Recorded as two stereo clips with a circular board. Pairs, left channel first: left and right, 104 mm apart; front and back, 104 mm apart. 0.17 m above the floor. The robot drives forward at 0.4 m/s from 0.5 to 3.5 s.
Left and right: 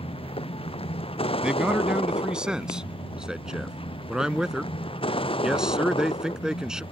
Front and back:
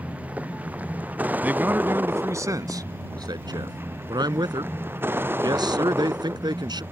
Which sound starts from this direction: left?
A vehicle, at 0.0 s.